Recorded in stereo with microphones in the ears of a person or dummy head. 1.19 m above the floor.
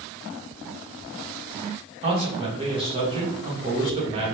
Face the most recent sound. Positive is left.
turn(degrees=-25)  # may be behind; listen again after turning